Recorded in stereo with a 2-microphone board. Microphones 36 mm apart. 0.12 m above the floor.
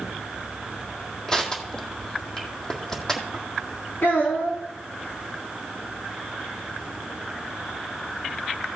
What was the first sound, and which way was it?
Crushing, 15° left (ahead or behind).